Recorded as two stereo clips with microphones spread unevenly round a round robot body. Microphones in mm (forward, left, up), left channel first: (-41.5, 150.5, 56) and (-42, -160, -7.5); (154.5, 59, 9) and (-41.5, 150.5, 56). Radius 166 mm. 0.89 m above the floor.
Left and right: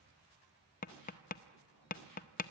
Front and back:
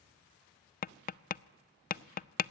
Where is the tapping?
20° left, 0.5 m.